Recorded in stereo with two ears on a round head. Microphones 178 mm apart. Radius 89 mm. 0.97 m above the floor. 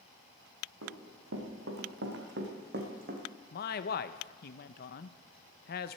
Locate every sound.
0.8 s running footsteps: 75° right (ahead or behind), 4 m; by 3.2 s 40° right (ahead or behind), 2.5 m
3.5 s a man speaking: 50° left (ahead or behind), 0.7 m